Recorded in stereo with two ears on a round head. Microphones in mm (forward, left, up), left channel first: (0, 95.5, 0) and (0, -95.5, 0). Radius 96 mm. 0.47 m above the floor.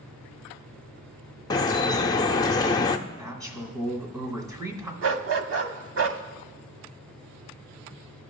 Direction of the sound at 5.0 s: 65° right (ahead or behind).